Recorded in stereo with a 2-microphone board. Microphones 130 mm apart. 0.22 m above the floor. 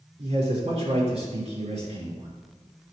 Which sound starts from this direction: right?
A man speaking, at 0.2 s.